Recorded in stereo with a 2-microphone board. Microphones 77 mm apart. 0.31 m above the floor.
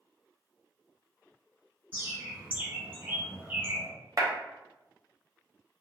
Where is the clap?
45° right (ahead or behind), 0.9 m.